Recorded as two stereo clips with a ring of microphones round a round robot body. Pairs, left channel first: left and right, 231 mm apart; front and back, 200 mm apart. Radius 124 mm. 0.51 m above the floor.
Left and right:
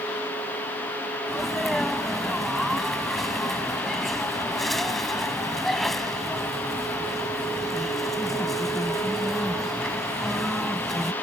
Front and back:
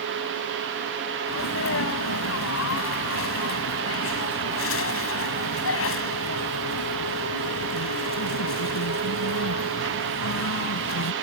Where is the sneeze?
Straight ahead.